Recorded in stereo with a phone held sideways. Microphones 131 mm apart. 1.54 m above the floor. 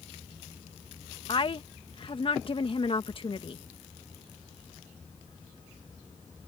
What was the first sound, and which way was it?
A woman speaking, 40° left (ahead or behind).